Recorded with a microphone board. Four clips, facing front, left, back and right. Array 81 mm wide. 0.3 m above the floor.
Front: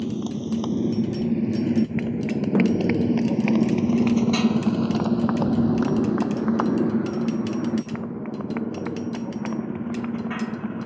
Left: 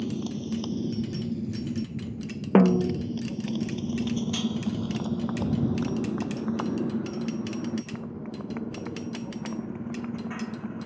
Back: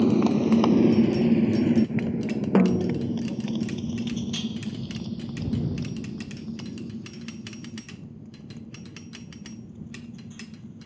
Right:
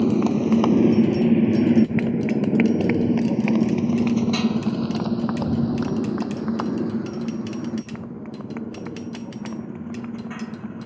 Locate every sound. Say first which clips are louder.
0.0 s a motorcycle: right 12 dB, back 7 dB; 130° right; by 10.9 s 5° right
2.5 s a snare drum: left 2 dB, front 1 dB; 105° left